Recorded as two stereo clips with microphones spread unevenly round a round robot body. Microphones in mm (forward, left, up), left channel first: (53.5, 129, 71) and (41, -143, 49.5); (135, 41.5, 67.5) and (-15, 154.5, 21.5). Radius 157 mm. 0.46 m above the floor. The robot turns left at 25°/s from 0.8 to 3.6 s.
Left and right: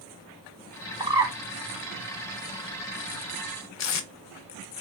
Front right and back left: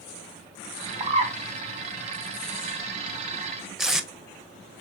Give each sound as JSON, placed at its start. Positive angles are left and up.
{"t": 1.0, "sound": "a bird", "azimuth_deg": -165, "distance_m": 0.5}
{"t": 3.8, "sound": "tape being pulled", "azimuth_deg": 55, "distance_m": 0.7}